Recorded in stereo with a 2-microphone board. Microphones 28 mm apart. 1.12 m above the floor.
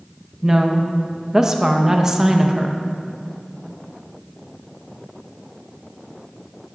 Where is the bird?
No bird in this recording.